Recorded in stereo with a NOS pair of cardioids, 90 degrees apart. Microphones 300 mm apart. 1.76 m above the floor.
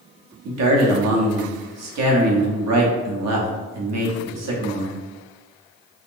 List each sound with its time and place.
0.5 s a man speaking: 65° right, 1.0 m